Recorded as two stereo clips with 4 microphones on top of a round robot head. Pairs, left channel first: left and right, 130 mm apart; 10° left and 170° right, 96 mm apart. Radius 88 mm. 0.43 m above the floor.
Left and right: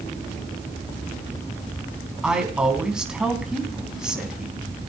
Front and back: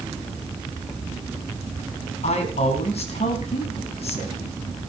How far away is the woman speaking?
About 4 m.